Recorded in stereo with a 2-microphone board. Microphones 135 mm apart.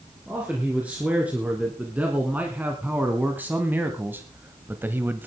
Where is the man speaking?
10° right (ahead or behind), 3 m; by 5.3 s 15° right (ahead or behind), 0.9 m.